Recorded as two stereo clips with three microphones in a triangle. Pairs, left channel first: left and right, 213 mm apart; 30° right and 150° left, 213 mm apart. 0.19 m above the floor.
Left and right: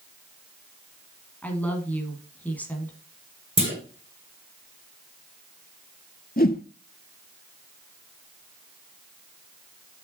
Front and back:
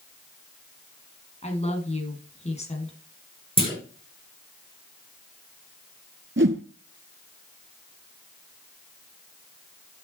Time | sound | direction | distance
1.4 | a woman speaking | 10° left | 1.5 m
3.6 | a clunk | 150° right | 3.5 m
6.4 | a whoosh | 130° left | 0.7 m